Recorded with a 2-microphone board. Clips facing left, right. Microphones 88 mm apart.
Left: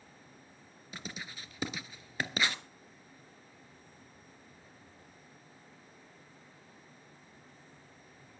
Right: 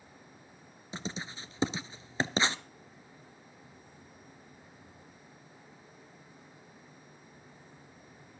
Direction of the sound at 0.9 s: 25° right (ahead or behind).